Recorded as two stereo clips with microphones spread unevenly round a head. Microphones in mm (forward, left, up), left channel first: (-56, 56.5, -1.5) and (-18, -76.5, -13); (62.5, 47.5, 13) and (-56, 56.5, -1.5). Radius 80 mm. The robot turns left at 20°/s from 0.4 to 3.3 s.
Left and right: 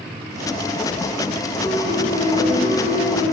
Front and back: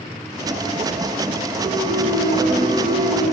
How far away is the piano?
About 1.4 m.